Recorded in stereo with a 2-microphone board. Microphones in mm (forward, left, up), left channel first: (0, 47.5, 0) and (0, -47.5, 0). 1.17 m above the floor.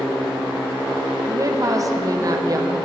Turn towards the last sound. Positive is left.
turn(degrees=-40)  # may be behind; listen again after turning